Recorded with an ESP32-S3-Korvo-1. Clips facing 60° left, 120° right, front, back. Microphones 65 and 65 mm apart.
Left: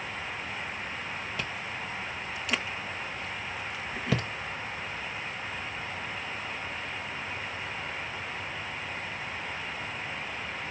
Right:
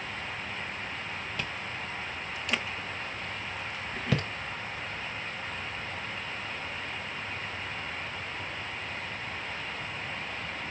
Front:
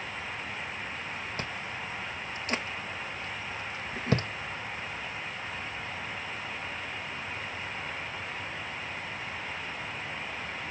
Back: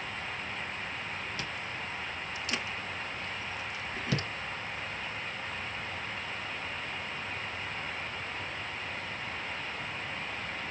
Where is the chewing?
25° right, 0.9 m.